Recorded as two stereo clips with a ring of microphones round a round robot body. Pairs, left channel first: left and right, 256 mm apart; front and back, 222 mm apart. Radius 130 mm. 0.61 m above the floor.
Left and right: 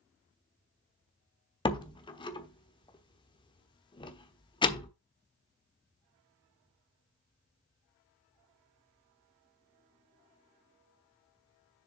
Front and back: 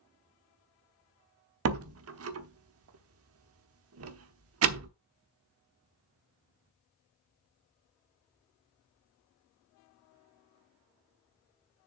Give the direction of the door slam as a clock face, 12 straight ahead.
7 o'clock.